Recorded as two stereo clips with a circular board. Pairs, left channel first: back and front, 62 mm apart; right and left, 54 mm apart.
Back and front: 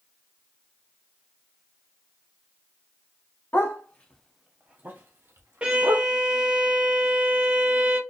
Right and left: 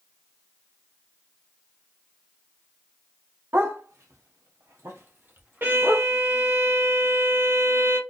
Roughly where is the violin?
Ahead left.